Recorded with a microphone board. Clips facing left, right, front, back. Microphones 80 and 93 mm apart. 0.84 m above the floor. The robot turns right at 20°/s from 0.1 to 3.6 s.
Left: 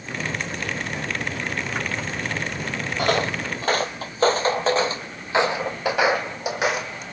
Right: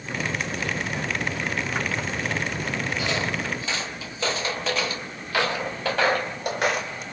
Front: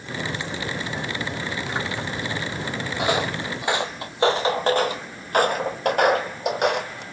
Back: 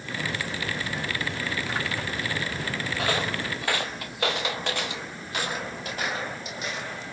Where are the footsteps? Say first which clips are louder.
Left 4 dB, front 5 dB; 70° left, 1.6 m; by 7.0 s straight ahead, 2.0 m.